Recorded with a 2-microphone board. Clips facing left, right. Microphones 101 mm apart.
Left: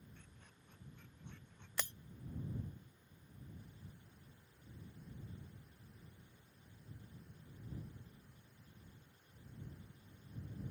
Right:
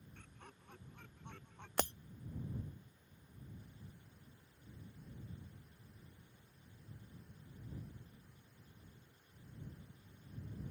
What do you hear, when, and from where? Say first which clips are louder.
0.1 s laughter: right 5 dB; 75° right (ahead or behind)
1.8 s breaking glass: right 9 dB; 60° right (ahead or behind)